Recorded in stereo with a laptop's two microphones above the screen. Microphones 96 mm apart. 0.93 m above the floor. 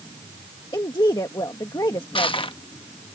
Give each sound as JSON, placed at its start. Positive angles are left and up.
{"t": 0.7, "sound": "a woman speaking", "side_deg": 45}
{"t": 2.1, "sound": "crushing", "side_deg": 65}